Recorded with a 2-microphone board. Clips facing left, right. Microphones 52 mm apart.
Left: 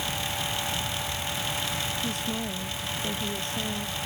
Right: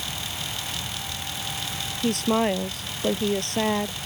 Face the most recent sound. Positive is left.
turn(degrees=-65)  # may be behind; listen again after turning